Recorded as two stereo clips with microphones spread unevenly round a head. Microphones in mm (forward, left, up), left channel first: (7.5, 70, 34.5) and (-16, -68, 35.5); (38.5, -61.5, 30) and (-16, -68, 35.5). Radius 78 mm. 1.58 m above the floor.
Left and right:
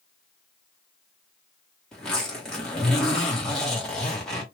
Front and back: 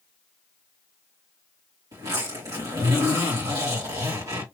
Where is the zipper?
165° left, 2.5 m.